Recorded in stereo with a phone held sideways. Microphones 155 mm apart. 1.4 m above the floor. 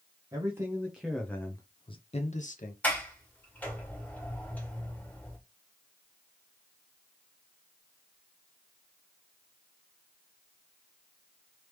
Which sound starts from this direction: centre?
A sliding door, at 2.8 s.